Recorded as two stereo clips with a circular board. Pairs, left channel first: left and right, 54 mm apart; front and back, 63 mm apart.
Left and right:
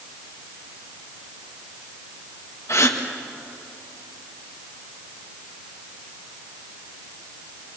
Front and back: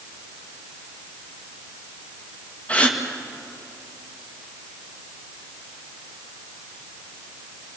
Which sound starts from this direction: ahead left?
A gasp, at 2.7 s.